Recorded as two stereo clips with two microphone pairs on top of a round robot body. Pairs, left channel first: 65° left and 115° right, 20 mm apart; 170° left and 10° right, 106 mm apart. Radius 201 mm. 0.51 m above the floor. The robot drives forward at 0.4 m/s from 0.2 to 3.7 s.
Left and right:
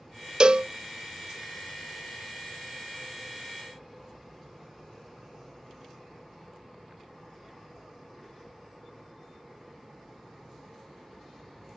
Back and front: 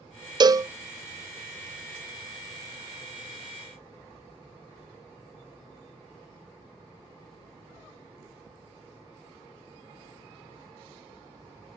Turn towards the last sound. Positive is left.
turn(degrees=-160)